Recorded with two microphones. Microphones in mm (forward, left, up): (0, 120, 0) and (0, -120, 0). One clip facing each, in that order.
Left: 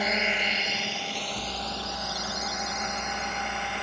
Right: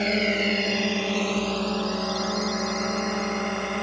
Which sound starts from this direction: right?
A drone, at 0.0 s.